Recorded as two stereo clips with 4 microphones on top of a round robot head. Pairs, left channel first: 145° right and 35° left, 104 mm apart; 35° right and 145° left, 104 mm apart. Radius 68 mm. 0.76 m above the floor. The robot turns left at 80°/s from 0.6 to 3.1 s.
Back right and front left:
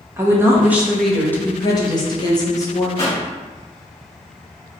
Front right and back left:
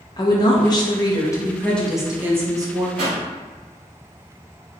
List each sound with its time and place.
0.2 s a woman speaking: 20° right, 1.0 m; by 2.9 s 155° left, 1.0 m
3.0 s a pop: 170° left, 1.7 m; by 3.2 s 160° left, 1.7 m